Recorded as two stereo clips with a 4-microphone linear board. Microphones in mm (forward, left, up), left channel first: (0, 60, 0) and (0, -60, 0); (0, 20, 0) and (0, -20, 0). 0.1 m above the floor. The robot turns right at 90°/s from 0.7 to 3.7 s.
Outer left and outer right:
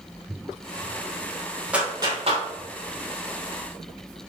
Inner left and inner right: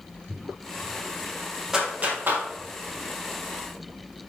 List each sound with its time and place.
1.7 s a clap: 10° right (ahead or behind), 3 m; by 2.5 s 65° right (ahead or behind), 3 m